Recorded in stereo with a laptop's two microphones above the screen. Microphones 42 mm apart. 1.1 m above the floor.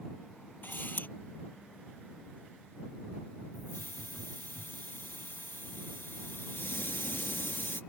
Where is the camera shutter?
55° left (ahead or behind).